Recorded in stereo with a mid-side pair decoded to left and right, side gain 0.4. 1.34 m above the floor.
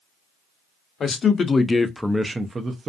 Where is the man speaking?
55° left, 0.9 m; by 2.9 s 50° right, 0.7 m.